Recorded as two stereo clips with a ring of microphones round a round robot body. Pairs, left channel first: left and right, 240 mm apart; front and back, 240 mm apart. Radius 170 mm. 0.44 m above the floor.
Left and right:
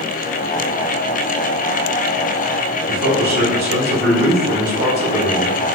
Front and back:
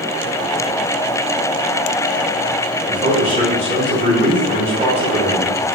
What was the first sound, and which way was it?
A man speaking, 125° right.